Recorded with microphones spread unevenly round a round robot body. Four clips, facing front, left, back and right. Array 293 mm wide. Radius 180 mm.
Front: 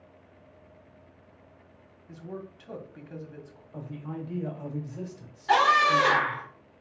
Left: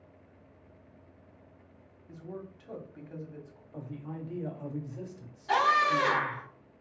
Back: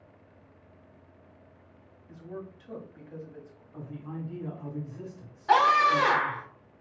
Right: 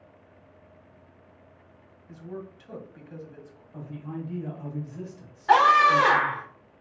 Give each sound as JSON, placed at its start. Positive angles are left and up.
{"t": 2.1, "sound": "a man speaking", "azimuth_deg": 0, "distance_m": 1.3}
{"t": 3.7, "sound": "a man speaking", "azimuth_deg": 30, "distance_m": 1.7}
{"t": 5.5, "sound": "a scream", "azimuth_deg": -130, "distance_m": 1.1}